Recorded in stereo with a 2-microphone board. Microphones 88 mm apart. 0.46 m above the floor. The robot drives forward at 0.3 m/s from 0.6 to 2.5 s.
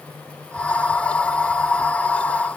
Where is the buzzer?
No buzzer in this recording.